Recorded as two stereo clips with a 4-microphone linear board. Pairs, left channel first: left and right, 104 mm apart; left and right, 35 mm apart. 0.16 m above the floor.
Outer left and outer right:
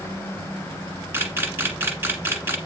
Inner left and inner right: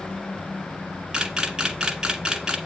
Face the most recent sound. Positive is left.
turn(degrees=-20)  # may be behind; listen again after turning